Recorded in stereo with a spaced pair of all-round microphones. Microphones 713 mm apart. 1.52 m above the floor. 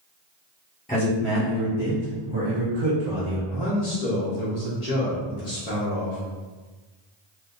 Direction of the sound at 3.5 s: 60° left (ahead or behind).